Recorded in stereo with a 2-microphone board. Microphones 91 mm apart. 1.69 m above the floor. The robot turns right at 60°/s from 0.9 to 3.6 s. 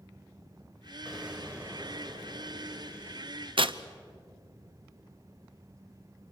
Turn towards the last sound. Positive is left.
turn(degrees=-65)  # may be behind; listen again after turning